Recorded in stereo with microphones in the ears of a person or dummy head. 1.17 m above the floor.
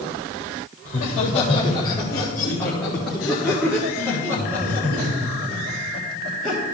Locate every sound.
0.8 s laughter: 45° left (ahead or behind), 1.6 m; by 6.8 s 25° right (ahead or behind), 4 m